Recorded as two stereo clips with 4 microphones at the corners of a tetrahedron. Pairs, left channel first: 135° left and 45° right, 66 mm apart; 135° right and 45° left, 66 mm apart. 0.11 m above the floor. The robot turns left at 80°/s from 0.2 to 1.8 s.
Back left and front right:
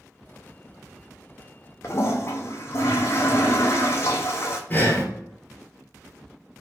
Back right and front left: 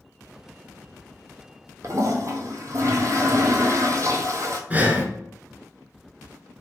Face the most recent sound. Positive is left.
turn(degrees=95)